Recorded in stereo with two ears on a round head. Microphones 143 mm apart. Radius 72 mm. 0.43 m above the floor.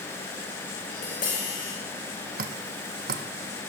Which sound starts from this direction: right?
Dripping, at 2.4 s.